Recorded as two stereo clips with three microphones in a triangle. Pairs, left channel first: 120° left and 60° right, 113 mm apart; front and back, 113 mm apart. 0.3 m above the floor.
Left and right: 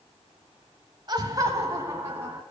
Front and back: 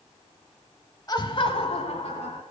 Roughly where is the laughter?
Ahead right.